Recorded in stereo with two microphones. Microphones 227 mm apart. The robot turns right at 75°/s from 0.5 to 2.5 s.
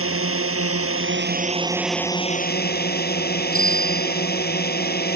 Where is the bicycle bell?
80° left.